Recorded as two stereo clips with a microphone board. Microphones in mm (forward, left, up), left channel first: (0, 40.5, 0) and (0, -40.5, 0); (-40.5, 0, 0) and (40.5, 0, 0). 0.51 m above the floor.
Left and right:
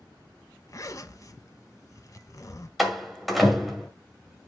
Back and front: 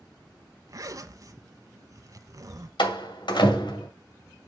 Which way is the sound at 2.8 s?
Straight behind.